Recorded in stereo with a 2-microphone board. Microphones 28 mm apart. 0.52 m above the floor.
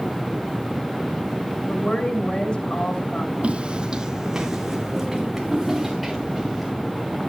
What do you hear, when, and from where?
1.7 s a woman speaking: 45° left (ahead or behind), 4.5 m
3.4 s footsteps: 50° right (ahead or behind), 1.2 m; by 6.7 s centre (ahead or behind), 4.5 m